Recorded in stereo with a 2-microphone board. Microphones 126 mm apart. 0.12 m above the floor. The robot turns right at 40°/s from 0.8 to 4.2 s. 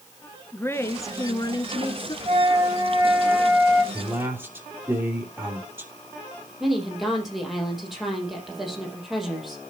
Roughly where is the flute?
Ahead right.